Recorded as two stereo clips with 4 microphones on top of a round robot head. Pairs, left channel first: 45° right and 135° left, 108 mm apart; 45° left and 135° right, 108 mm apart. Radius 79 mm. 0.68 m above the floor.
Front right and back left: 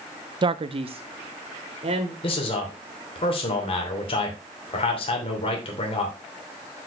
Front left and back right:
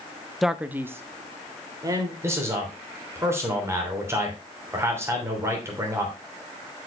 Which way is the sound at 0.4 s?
135° left.